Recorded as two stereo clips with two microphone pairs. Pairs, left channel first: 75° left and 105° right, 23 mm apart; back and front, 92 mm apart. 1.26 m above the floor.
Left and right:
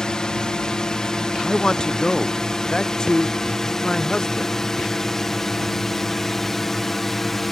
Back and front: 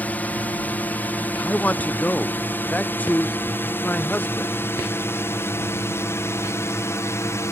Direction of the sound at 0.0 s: 110° left.